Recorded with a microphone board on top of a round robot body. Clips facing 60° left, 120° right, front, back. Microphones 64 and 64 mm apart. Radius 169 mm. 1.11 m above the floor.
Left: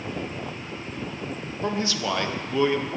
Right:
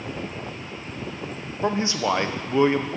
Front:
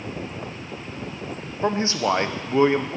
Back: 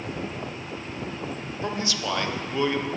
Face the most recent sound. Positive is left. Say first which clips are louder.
# right 4 dB, front 7 dB
turn(degrees=-55)